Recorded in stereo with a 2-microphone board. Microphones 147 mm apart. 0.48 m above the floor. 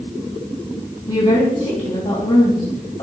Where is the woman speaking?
55° left (ahead or behind), 3 m.